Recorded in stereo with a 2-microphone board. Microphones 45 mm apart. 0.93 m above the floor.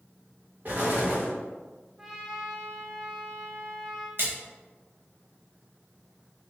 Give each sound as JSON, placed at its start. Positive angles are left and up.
{"t": 0.7, "sound": "an explosion", "side_deg": -40, "distance_m": 1.3}
{"t": 2.0, "sound": "a trumpet", "side_deg": -15, "distance_m": 0.7}
{"t": 4.2, "sound": "a splash", "side_deg": -55, "distance_m": 1.0}